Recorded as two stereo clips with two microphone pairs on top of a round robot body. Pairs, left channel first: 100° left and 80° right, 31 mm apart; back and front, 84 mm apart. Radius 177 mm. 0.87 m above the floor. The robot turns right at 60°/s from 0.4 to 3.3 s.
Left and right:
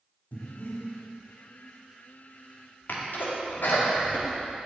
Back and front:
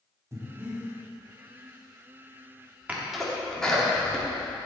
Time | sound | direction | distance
0.3 | breathing | 60° left | 2 m
2.9 | a sneeze | 75° left | 2.5 m